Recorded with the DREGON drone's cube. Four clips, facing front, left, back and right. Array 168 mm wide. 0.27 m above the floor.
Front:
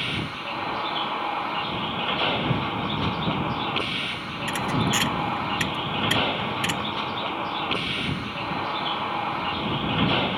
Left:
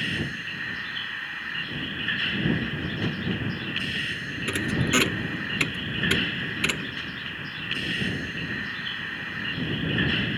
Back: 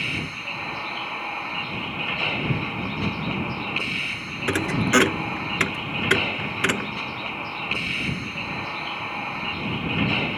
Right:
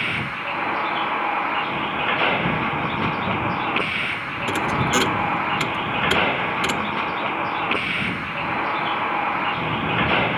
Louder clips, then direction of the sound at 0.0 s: Right 5 dB, front 1 dB; 75° right.